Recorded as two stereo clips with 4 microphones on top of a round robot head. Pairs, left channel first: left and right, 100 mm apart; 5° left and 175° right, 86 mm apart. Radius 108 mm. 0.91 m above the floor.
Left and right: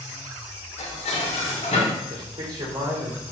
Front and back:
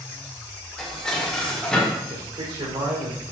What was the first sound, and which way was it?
Dishes clattering, 85° left.